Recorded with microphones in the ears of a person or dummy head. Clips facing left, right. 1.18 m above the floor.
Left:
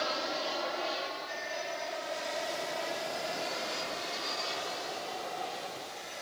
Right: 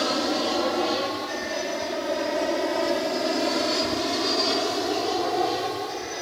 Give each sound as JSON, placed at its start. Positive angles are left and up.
{"t": 0.0, "sound": "an aircraft", "side_deg": -55}